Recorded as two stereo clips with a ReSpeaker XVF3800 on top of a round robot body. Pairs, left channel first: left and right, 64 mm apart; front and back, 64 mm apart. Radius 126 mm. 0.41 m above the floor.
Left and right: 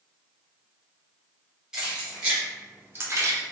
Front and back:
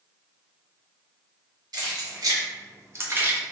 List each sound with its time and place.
1.7 s keys jangling: 170° right, 1.3 m; by 3.4 s 115° right, 0.7 m